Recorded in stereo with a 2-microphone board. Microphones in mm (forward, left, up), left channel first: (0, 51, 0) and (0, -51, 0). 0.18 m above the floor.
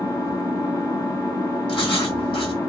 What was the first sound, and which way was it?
An engine running, 35° left (ahead or behind).